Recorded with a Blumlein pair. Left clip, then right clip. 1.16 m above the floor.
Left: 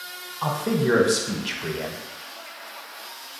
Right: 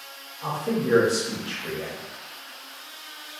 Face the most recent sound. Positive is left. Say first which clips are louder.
# left 3 dB
turn(degrees=50)